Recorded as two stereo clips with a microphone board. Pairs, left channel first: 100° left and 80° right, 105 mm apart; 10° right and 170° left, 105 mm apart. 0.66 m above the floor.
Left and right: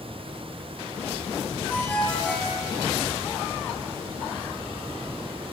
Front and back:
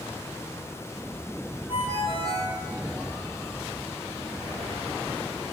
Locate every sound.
1.7 s a ringtone: 25° left, 10 m